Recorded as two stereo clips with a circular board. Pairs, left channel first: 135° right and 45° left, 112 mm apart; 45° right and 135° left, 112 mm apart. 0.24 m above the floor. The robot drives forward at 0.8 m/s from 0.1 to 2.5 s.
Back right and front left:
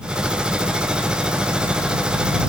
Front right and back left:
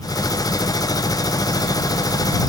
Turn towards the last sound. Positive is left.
No sound to turn to.